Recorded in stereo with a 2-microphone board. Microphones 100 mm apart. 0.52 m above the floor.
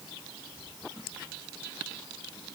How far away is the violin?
No violin in this recording.